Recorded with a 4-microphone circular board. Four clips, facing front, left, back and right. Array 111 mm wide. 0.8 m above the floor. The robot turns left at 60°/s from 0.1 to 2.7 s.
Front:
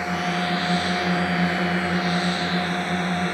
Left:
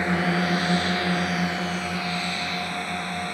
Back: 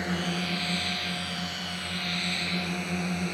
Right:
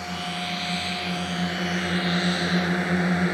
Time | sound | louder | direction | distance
0.0 | a drone | left 8 dB, front 6 dB | 85° left | ?